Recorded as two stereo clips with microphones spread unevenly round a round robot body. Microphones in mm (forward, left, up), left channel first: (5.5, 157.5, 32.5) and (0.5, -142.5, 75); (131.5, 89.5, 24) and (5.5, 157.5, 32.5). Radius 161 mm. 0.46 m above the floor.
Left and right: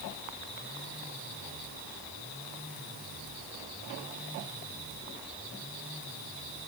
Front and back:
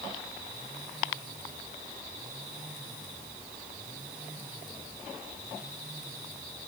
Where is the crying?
No crying in this recording.